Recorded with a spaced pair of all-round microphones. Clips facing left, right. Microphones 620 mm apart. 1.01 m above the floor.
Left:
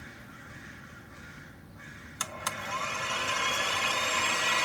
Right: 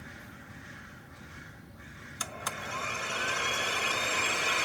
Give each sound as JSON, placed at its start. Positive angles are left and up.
{"t": 2.2, "sound": "a blender", "side_deg": 25}